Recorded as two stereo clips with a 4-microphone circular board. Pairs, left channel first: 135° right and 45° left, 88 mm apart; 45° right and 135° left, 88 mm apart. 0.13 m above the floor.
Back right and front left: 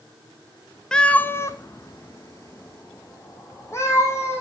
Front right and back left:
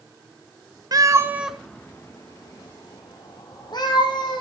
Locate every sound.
0.9 s a cat meowing: 145° left, 0.9 m; by 4.4 s 75° right, 3.5 m